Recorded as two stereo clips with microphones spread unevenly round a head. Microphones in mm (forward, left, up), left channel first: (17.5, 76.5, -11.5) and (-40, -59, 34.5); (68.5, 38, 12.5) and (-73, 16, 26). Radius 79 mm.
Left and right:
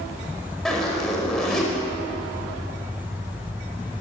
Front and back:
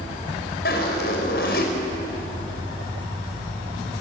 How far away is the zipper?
About 5 m.